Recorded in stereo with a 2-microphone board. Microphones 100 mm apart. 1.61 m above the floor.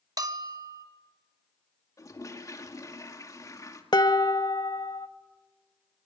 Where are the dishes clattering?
45° left (ahead or behind), 1.2 m.